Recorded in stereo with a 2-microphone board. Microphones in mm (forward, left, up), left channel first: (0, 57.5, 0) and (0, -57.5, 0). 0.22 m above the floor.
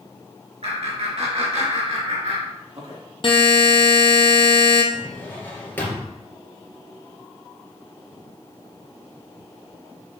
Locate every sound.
0.6 s laughter: 70° right (ahead or behind), 4 m; by 3.0 s 65° right (ahead or behind), 3.5 m
3.2 s a buzzer: 50° left (ahead or behind), 1.2 m
4.9 s a drawer: 20° left (ahead or behind), 2.5 m